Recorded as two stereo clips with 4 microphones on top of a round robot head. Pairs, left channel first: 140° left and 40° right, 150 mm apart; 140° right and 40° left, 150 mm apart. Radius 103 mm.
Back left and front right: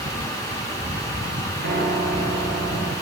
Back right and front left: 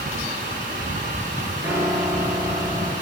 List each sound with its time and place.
1.6 s a piano: 30° right, 5 m